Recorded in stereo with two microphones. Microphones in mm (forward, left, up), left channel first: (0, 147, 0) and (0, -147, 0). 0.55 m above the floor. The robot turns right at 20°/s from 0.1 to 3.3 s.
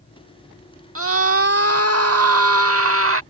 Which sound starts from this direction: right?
A scream, at 0.9 s.